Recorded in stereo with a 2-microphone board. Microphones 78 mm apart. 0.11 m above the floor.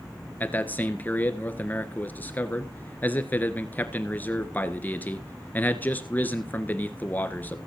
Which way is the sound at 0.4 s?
25° left (ahead or behind).